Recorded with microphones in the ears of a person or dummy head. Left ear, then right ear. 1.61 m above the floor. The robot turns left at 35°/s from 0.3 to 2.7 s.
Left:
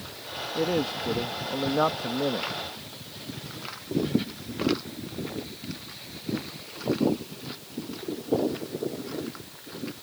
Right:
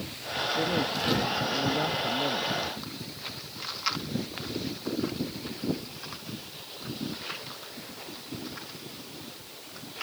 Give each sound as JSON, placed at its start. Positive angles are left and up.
{"t": 0.6, "sound": "a man speaking", "azimuth_deg": 175}